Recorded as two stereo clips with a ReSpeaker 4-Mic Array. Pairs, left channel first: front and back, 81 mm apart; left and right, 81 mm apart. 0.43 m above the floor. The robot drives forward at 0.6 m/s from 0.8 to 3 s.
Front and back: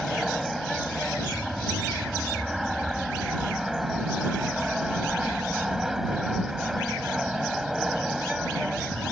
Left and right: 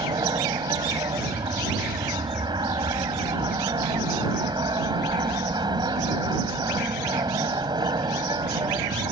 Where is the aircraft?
90° right; by 9.1 s 95° right.